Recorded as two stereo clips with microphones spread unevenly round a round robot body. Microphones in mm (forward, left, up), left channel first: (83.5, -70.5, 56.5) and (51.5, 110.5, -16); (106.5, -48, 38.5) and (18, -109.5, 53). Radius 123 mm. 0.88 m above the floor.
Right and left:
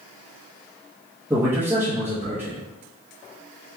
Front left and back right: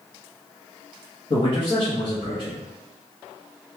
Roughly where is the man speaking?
Ahead left.